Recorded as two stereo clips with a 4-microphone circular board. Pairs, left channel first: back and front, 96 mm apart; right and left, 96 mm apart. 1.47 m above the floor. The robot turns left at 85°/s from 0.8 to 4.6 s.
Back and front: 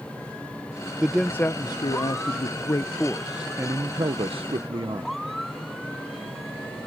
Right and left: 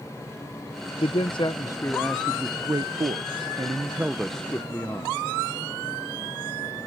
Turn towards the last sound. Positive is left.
turn(degrees=-25)